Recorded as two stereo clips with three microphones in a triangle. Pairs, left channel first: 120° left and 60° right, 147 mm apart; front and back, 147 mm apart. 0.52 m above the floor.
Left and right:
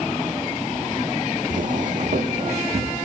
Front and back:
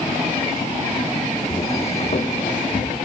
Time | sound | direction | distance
1.5 | footsteps | 45° right | 1.2 m